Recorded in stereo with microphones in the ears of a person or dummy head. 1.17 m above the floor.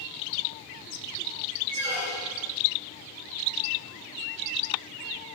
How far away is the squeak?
About 1.1 m.